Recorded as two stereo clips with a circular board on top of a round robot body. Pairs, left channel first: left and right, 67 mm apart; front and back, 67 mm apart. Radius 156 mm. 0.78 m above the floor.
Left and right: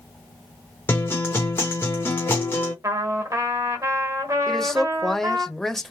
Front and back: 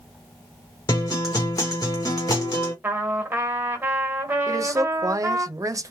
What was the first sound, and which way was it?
A guitar, 35° left.